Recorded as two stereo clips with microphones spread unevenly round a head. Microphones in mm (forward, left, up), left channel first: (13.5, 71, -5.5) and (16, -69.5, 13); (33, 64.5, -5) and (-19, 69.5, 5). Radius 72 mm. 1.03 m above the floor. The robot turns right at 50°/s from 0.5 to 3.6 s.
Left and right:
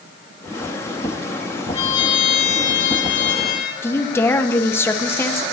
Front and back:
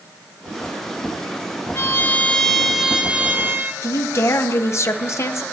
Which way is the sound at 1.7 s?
35° left.